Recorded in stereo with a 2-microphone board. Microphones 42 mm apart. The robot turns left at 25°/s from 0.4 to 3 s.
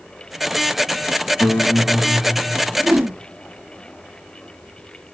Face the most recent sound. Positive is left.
turn(degrees=-70)  # may be behind; listen again after turning